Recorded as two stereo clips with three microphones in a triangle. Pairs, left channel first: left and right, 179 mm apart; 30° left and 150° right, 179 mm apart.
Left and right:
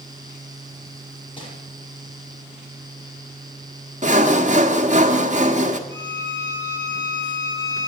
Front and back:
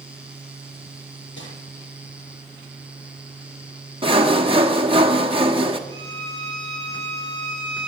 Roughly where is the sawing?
Right.